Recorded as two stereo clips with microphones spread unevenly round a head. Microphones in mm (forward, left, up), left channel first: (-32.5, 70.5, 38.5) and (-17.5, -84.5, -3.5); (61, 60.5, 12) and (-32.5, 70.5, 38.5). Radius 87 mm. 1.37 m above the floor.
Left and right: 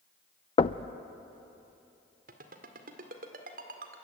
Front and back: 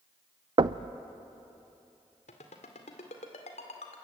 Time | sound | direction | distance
0.6 | knocking | 145° left | 0.6 m
2.3 | a ringtone | 40° right | 2 m